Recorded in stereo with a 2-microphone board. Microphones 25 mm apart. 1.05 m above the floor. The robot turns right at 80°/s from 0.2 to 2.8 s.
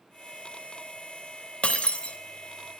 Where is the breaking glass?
75° left, 0.6 m; by 2.2 s 120° left, 0.6 m.